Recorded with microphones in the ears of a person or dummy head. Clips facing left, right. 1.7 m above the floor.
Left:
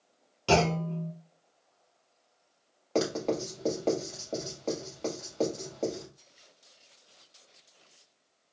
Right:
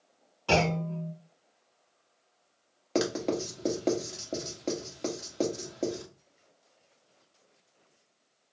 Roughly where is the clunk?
Left.